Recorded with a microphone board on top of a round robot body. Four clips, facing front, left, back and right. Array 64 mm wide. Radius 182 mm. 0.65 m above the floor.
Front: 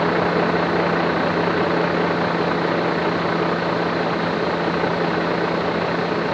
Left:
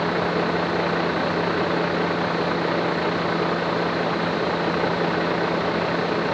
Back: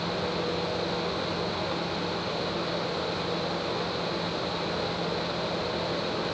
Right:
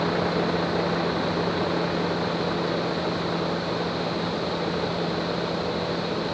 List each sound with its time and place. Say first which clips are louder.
0.0 s a vehicle: left 2 dB, front 12 dB; 15° left; by 6.3 s 35° left